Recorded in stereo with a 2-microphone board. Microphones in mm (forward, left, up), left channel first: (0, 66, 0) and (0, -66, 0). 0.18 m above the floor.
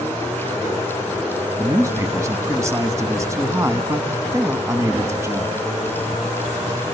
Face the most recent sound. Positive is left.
turn(degrees=-25)  # may be behind; listen again after turning